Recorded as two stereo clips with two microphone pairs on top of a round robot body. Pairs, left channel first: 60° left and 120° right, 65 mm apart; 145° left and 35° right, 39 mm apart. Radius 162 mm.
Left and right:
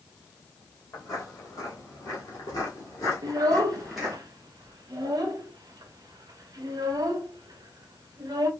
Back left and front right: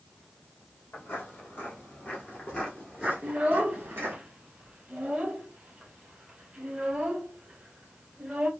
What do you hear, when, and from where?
0.9 s footsteps: 100° left, 1.7 m; by 4.2 s 40° right, 1.0 m
3.2 s a child speaking: 105° right, 0.6 m